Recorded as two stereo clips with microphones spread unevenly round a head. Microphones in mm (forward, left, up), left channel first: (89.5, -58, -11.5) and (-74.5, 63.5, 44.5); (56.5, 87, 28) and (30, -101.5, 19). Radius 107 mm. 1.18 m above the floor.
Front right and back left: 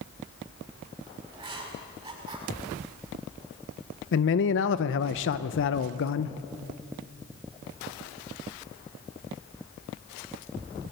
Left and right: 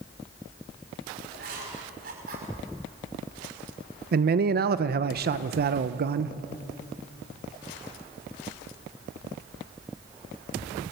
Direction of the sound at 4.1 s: 60° right.